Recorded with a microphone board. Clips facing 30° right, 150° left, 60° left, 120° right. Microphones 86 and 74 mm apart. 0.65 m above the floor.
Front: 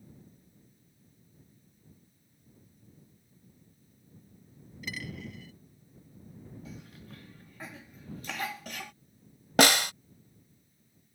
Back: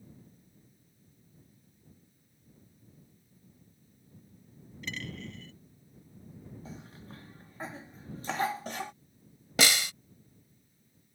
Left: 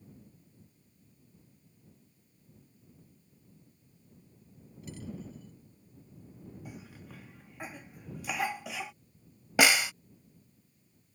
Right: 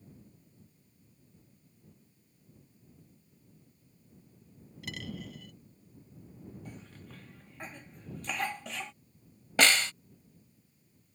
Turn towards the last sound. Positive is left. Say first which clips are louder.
# front 6 dB, left 1 dB
turn(degrees=-20)